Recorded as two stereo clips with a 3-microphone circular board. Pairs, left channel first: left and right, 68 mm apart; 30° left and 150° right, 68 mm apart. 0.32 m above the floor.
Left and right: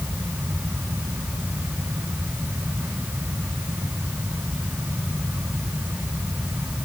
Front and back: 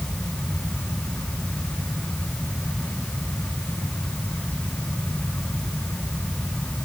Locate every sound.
Only background noise.